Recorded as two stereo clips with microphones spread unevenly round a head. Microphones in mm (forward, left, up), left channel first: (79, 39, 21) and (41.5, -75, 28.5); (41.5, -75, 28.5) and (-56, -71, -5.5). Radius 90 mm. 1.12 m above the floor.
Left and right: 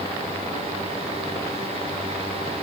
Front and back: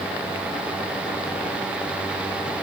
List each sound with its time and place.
Only background noise.